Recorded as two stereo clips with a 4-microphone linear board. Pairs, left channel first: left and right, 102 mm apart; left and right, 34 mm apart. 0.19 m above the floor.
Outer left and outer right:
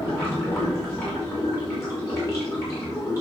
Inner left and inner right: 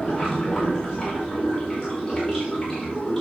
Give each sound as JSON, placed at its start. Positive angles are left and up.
{"t": 0.0, "sound": "running water", "side_deg": 30, "distance_m": 5.5}